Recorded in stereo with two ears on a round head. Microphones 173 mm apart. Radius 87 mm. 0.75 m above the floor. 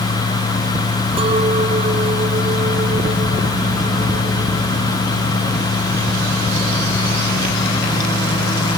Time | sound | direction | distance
1.2 | a clink | 30° right (ahead or behind) | ?